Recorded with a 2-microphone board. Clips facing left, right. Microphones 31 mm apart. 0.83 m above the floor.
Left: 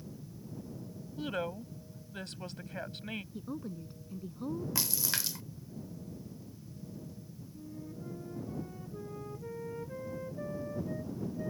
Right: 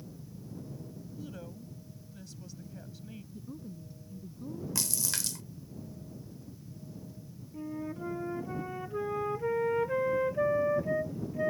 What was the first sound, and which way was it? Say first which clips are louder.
A woman speaking: left 11 dB; 70° left (ahead or behind).